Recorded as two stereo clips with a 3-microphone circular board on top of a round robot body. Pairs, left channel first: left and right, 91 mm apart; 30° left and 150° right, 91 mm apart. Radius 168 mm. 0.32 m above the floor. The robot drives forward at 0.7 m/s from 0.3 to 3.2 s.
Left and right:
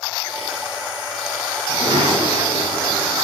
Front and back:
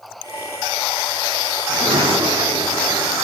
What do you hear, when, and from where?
1.7 s a sliding door: 125° right, 5 m; by 3.3 s 135° right, 6 m